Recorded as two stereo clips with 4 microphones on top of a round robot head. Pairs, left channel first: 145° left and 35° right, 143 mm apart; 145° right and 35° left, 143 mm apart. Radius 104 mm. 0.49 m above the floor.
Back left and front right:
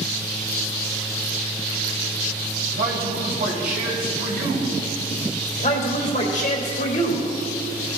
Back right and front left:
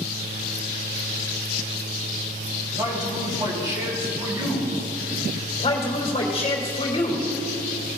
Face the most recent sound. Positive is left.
turn(degrees=170)